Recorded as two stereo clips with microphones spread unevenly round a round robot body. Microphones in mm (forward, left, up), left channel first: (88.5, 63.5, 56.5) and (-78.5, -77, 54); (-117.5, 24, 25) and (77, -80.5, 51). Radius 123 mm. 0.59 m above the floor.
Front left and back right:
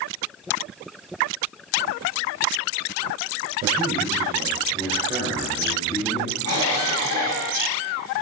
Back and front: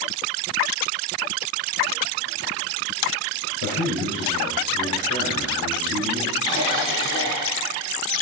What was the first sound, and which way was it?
A man speaking, 155° left.